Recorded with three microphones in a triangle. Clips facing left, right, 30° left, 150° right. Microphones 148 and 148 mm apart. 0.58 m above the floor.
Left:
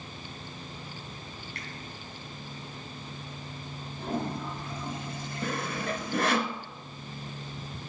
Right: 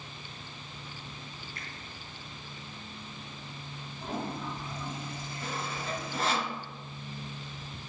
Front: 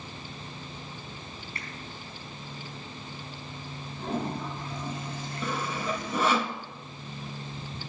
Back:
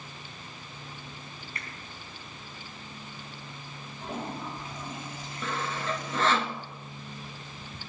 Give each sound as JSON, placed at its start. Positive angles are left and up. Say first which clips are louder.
{"t": 1.6, "sound": "a finger snap", "louder": "left 3 dB, even", "azimuth_deg": 90, "distance_m": 4.0}
{"t": 4.0, "sound": "a toilet flushing", "louder": "left 3 dB, front 4 dB", "azimuth_deg": 60, "distance_m": 7.5}
{"t": 5.4, "sound": "sawing", "louder": "left 5 dB, front 1 dB", "azimuth_deg": 110, "distance_m": 1.1}